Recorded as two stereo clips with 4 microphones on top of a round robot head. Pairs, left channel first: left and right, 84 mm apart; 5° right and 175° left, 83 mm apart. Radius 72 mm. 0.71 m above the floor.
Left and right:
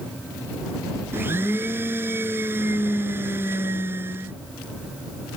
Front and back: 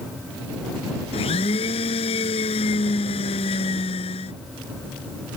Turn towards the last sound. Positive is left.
turn(degrees=-20)